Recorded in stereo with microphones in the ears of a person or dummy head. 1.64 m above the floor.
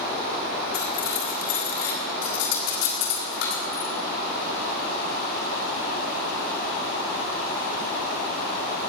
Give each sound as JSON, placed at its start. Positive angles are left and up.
{"t": 0.7, "sound": "cutlery clinking", "side_deg": 65, "distance_m": 4.5}